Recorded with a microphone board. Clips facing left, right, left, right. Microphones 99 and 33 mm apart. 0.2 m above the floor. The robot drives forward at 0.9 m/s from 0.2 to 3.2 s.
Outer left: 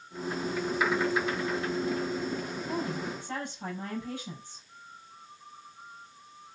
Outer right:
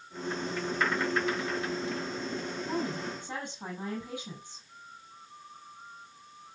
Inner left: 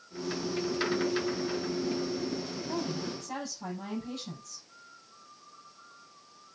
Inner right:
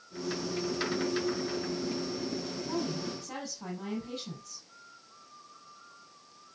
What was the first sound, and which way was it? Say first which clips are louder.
A woman speaking: even, even; 15° right (ahead or behind).